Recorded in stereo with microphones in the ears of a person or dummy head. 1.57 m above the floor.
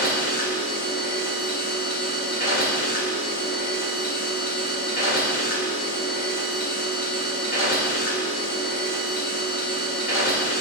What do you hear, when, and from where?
0.0 s a machine running: 50° left (ahead or behind), 0.7 m